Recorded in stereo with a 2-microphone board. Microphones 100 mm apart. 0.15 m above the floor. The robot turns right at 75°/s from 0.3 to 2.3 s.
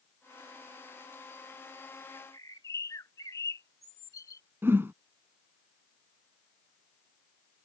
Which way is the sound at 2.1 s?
40° left (ahead or behind).